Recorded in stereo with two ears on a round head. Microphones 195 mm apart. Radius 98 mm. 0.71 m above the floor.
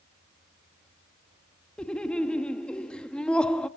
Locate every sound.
1.8 s laughter: 5° left (ahead or behind), 0.9 m